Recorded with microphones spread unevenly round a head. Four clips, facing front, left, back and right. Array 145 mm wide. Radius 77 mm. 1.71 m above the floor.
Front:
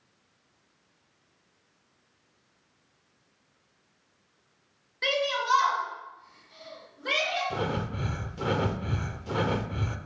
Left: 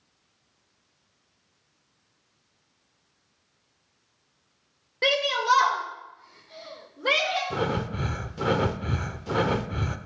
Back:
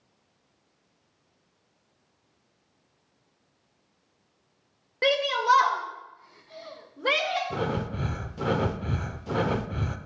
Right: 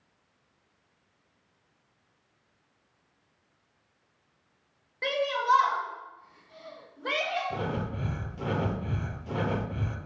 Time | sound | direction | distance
5.0 | a shout | 140° left | 0.8 m
7.5 | breathing | 80° left | 0.5 m